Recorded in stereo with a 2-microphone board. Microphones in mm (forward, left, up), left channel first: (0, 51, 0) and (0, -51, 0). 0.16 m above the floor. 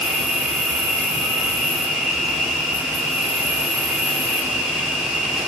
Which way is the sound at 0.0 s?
10° right (ahead or behind).